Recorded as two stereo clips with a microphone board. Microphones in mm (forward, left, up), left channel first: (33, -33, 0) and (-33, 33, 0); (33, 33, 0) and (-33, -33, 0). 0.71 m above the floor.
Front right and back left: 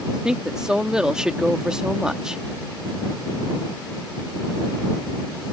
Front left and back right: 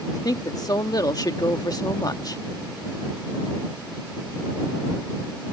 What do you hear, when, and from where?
0.1 s a woman speaking: 55° left